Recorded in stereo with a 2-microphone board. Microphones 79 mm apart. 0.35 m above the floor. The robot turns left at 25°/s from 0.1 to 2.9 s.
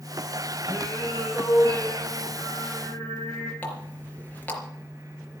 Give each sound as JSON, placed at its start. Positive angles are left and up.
{"t": 0.7, "sound": "singing", "azimuth_deg": 75, "distance_m": 7.5}
{"t": 3.6, "sound": "a running tap", "side_deg": 20, "distance_m": 4.0}